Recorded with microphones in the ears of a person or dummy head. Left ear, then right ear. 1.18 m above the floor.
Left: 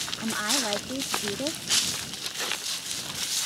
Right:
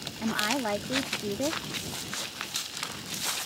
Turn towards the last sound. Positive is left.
turn(degrees=-5)  # may be behind; listen again after turning